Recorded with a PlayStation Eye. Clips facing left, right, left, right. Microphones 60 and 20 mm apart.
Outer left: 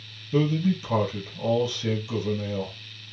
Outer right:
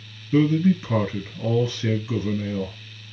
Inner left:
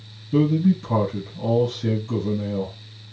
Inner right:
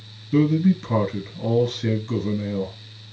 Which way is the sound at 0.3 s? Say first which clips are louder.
Outer right 5 dB, even; 35° right (ahead or behind).